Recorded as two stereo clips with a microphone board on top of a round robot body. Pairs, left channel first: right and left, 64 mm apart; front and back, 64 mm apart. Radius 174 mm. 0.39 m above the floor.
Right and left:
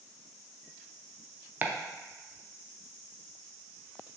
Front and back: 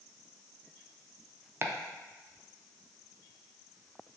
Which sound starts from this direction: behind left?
Chopping, at 1.6 s.